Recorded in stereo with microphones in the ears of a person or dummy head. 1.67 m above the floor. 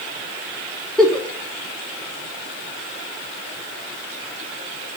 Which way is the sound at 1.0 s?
Centre (ahead or behind).